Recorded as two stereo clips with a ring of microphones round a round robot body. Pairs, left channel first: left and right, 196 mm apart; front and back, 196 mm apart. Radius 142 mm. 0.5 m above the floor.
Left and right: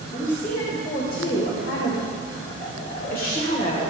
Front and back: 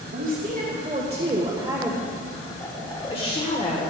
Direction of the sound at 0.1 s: 140° left.